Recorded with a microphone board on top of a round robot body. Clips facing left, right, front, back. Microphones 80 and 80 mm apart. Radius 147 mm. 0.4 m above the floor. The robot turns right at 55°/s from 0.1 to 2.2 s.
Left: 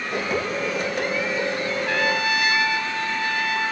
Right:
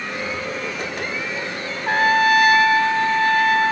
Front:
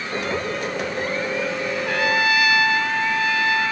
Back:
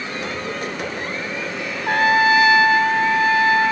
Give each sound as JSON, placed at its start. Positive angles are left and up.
{"t": 1.9, "sound": "a trumpet", "azimuth_deg": -140, "distance_m": 1.0}